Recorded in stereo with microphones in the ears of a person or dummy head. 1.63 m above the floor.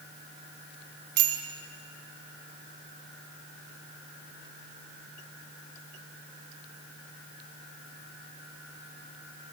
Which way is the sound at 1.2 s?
65° right (ahead or behind).